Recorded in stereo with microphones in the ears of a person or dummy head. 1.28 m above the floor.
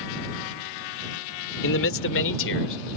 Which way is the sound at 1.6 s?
70° left (ahead or behind).